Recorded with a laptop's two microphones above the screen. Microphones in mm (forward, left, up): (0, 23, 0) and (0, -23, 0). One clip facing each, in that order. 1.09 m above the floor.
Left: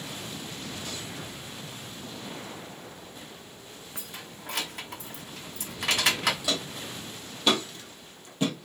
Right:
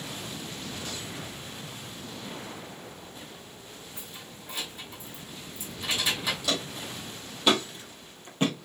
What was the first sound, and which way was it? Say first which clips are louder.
Keys jangling: left 2 dB; 65° left (ahead or behind).